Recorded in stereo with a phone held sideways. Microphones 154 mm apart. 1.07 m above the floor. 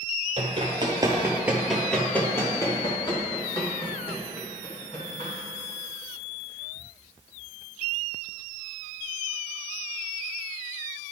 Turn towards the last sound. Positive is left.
turn(degrees=45)  # may be behind; listen again after turning